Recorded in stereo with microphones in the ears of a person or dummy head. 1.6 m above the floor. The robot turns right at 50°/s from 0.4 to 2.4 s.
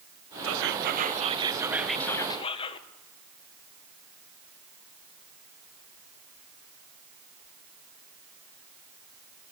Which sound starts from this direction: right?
Whispering, at 0.4 s.